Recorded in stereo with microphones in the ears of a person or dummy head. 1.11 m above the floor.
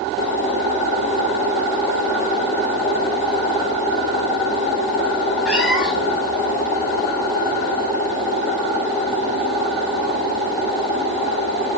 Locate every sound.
5.5 s a cat meowing: centre (ahead or behind), 1.5 m